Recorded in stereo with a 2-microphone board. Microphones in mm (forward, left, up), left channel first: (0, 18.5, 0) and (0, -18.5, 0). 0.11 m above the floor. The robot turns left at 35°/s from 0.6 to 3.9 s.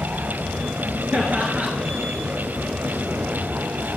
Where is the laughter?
40° right (ahead or behind), 1.7 m.